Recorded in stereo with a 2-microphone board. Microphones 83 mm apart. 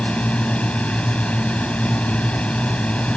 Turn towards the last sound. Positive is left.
turn(degrees=15)  # may be behind; listen again after turning